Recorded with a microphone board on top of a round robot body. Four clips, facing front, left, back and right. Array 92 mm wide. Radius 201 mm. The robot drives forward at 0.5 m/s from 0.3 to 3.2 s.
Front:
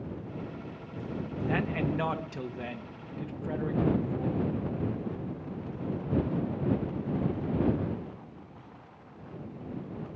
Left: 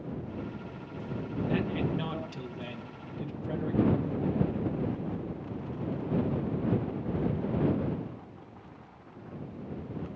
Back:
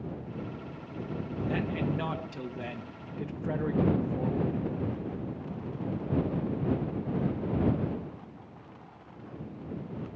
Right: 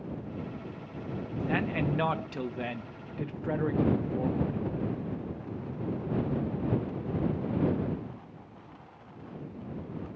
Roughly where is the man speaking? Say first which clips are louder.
Right 1 dB, front 2 dB; ahead right.